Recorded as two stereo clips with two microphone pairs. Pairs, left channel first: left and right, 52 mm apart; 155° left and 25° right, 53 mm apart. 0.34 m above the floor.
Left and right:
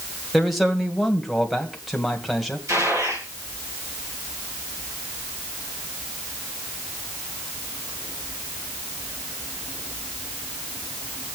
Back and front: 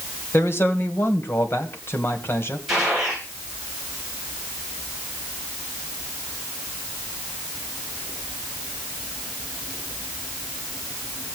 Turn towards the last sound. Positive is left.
turn(degrees=-105)